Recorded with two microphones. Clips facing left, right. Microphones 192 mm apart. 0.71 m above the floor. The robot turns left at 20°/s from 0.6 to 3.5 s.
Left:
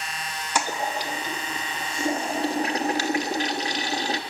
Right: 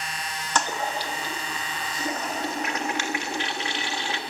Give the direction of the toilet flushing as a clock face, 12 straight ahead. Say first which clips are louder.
Even; 7 o'clock.